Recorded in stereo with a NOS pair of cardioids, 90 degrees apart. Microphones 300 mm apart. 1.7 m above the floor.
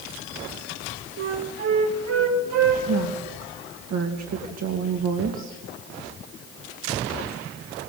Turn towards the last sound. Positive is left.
turn(degrees=-65)